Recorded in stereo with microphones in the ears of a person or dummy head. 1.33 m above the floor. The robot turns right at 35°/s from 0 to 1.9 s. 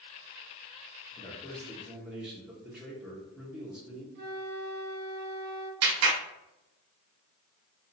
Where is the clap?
80° right, 1.0 m.